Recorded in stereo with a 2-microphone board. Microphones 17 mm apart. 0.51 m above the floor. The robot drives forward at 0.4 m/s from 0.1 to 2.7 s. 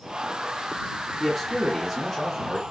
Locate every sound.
1.2 s a man speaking: 5° left (ahead or behind), 0.8 m; by 2.6 s centre (ahead or behind), 1.2 m